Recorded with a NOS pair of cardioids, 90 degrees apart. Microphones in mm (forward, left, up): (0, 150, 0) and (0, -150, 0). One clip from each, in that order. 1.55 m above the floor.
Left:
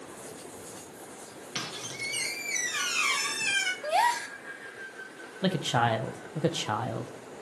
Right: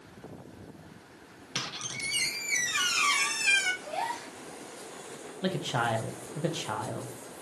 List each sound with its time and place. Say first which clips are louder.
1.6 s a squeak: right 1 dB; 5° right, 1.9 m
3.8 s a gasp: left 8 dB; 70° left, 0.9 m
5.4 s a man speaking: left 3 dB; 25° left, 1.1 m